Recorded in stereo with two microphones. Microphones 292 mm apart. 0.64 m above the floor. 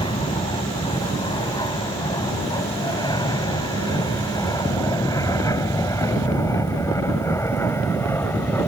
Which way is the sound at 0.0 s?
15° left (ahead or behind).